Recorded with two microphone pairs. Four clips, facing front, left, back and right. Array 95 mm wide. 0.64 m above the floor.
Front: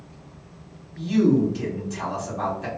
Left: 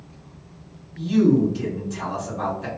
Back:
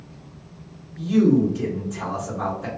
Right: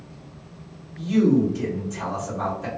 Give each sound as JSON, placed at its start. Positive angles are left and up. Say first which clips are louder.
{"t": 1.0, "sound": "a man speaking", "louder": "left 1 dB, back 2 dB", "azimuth_deg": -10, "distance_m": 1.8}